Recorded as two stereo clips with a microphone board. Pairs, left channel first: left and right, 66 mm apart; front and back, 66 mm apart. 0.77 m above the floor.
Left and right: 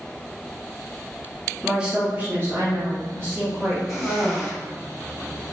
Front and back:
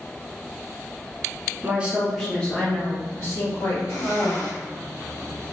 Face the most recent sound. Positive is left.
turn(degrees=-10)